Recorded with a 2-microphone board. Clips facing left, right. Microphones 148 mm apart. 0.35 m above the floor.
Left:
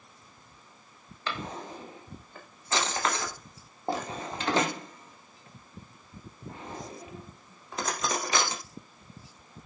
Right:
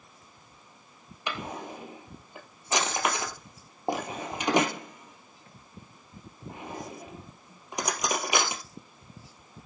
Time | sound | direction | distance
1.3 | a drawer | 15° right (ahead or behind) | 2.5 m